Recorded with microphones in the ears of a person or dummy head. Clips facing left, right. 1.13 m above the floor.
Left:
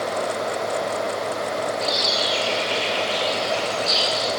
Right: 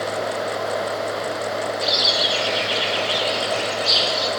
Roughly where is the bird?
Right.